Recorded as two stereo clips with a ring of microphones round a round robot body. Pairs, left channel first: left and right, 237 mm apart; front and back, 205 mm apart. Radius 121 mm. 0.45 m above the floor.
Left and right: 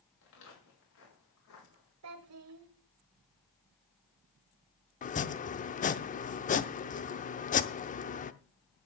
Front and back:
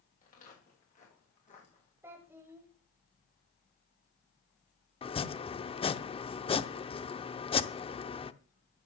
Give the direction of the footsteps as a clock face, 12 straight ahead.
10 o'clock.